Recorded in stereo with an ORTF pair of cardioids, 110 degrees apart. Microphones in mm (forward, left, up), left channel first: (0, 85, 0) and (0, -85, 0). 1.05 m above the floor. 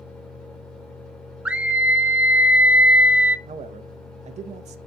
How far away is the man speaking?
About 0.8 m.